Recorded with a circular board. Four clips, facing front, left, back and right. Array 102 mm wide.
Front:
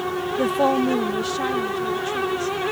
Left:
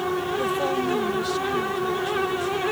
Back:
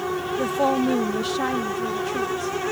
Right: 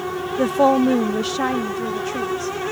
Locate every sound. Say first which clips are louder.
0.4 s a woman speaking: right 13 dB, front 2 dB; 70° right; by 2.6 s 105° right